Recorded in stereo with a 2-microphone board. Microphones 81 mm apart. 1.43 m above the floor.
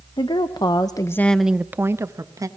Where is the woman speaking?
75° left (ahead or behind), 1.3 m; by 2.5 s 45° right (ahead or behind), 1.5 m.